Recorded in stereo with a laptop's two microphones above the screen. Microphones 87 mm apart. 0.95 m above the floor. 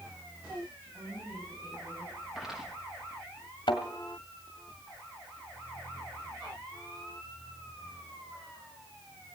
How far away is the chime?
No chime in this recording.